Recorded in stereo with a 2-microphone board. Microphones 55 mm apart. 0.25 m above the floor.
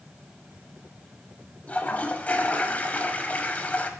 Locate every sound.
1.7 s a toilet flushing: 30° left (ahead or behind), 0.6 m